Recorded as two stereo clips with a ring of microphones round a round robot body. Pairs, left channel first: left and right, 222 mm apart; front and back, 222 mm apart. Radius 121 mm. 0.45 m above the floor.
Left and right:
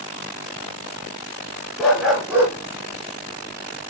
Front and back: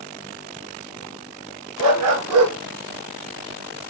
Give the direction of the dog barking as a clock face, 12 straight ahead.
6 o'clock.